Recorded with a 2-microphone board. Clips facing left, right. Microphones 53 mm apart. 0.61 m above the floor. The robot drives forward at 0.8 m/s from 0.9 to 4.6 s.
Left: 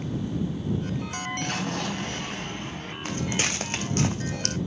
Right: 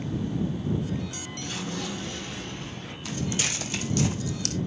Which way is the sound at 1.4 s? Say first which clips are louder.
Left 1 dB; 60° left (ahead or behind).